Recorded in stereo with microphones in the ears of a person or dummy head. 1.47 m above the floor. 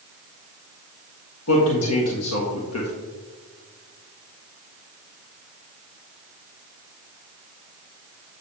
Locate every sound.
1.5 s a man speaking: 80° left, 1.5 m